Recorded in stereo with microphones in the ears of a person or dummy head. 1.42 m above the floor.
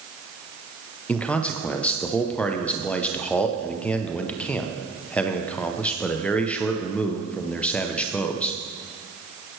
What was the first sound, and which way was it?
A man speaking, 5° left (ahead or behind).